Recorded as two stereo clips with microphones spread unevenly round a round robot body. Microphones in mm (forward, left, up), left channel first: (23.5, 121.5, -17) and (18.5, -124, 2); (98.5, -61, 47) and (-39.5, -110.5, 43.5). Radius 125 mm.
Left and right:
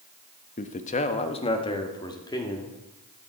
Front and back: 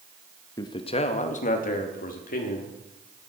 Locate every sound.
0.6 s a man speaking: 70° left, 0.8 m; by 2.8 s 15° left, 1.8 m